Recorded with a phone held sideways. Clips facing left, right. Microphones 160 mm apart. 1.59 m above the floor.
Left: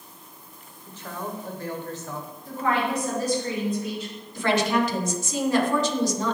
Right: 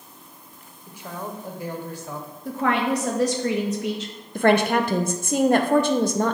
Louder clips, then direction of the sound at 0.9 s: Even; 10° right (ahead or behind).